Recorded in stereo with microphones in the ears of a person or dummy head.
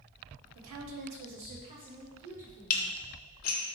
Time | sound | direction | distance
0.6 | a woman speaking | 75° right (ahead or behind) | 0.8 m
2.7 | dishes clattering | 45° left (ahead or behind) | 0.6 m